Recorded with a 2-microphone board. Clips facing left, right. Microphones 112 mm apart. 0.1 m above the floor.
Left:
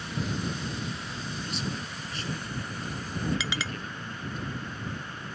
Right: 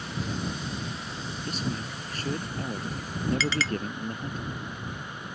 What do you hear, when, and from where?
1.5 s a man speaking: 45° right (ahead or behind)
3.4 s a clink: 15° left (ahead or behind)